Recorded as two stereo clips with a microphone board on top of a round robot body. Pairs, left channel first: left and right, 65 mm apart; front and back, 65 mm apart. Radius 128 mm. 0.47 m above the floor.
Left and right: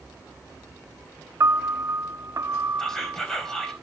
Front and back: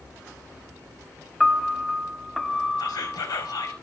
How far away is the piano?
About 0.8 m.